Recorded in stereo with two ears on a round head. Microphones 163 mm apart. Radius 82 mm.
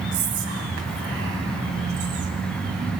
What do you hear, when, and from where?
0.1 s whispering: 80° right, 4 m